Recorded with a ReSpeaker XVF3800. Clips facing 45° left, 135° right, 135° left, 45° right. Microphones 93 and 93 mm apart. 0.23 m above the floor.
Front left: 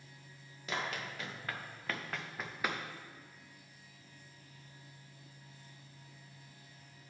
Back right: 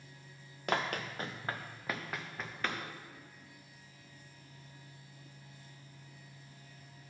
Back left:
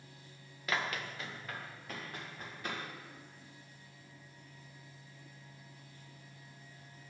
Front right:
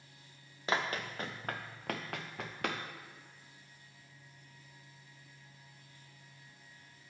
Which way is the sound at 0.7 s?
105° right.